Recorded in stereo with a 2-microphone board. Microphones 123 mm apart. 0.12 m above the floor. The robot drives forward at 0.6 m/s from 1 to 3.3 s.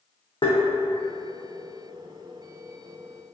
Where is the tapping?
50° left (ahead or behind), 1.1 m.